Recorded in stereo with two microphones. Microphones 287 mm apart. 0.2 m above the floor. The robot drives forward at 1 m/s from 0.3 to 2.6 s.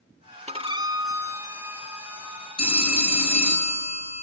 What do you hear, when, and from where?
0.5 s a violin: 25° right (ahead or behind), 0.5 m; by 3.6 s 5° right (ahead or behind), 2.5 m
2.6 s a phone ringing: 60° left (ahead or behind), 1.9 m; by 4.2 s 65° left (ahead or behind), 1.9 m